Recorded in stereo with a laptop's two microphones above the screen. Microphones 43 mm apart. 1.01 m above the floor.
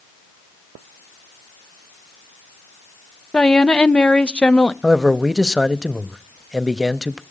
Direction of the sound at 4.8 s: 5° right (ahead or behind).